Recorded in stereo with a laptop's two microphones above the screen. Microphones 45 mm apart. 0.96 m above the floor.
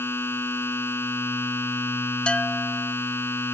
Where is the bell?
25° left (ahead or behind).